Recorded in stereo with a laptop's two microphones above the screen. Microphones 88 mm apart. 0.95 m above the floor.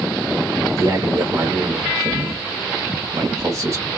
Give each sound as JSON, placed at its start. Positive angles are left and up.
{"t": 0.7, "sound": "a man speaking", "side_deg": -35, "distance_m": 1.4}